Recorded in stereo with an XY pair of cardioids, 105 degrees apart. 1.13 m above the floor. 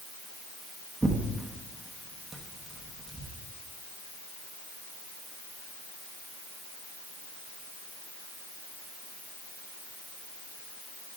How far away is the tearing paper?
About 1.1 m.